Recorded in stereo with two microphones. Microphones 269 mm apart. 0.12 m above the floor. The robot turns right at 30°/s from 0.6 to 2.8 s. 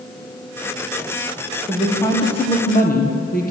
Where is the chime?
I don't hear a chime.